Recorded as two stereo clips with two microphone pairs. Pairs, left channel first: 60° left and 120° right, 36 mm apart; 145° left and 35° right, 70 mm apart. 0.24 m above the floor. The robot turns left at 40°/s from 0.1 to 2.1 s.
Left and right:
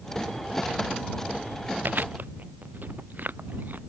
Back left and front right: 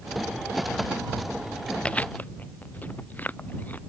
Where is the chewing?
140° right; by 3.8 s 150° right.